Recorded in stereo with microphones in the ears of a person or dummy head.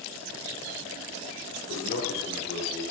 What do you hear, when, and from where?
1.7 s a man speaking: 75° left (ahead or behind), 3.5 m